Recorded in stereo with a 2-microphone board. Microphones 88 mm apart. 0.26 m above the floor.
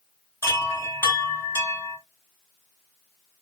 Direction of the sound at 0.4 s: 25° left (ahead or behind).